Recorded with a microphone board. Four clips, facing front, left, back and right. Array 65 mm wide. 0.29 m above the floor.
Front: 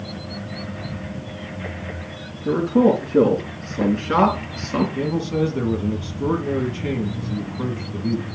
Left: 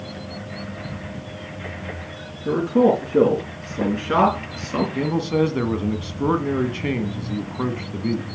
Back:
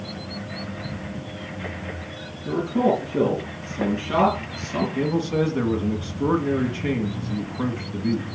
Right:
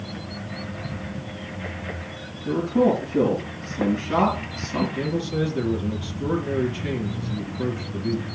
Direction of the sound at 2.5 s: 40° left.